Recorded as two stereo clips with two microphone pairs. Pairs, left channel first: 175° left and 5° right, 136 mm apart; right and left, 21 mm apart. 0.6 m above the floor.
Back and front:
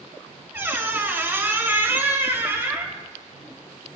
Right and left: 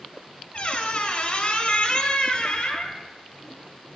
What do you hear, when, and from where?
0.5 s a squeak: 75° right, 0.8 m